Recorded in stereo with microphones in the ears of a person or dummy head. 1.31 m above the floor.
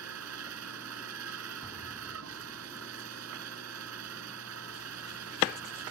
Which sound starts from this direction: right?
A machine running, at 0.0 s.